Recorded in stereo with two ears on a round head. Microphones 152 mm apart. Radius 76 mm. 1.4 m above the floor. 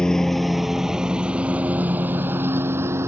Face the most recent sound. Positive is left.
turn(degrees=-15)  # may be behind; listen again after turning